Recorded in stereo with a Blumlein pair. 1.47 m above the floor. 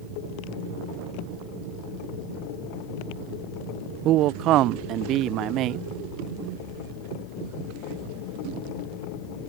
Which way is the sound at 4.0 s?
35° right.